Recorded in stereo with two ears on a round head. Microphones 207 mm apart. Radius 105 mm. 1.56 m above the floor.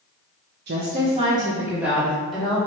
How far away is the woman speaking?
About 1.0 m.